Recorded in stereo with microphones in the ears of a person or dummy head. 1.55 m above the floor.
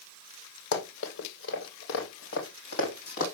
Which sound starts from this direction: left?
Running footsteps, at 0.7 s.